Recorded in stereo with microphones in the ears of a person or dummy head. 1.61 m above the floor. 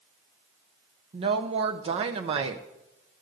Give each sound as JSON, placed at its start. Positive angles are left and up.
{"t": 1.1, "sound": "a woman speaking", "side_deg": -30, "distance_m": 0.7}